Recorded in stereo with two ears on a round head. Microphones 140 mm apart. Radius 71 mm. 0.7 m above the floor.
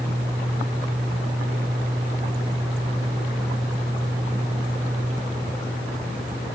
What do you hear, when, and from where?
Only background noise.